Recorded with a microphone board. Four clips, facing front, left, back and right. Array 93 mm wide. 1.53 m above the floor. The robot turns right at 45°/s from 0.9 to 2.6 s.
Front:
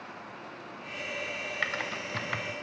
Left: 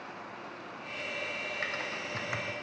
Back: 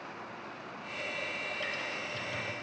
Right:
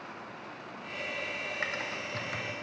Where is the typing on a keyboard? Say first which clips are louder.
Right 1 dB, front 4 dB; 10° right, 0.8 m; by 2.6 s 30° left, 0.8 m.